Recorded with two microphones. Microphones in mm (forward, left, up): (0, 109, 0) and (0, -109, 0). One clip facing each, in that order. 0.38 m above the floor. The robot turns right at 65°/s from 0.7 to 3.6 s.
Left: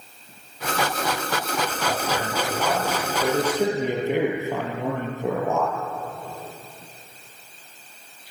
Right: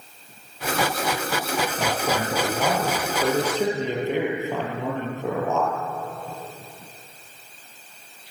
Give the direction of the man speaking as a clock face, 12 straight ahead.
4 o'clock.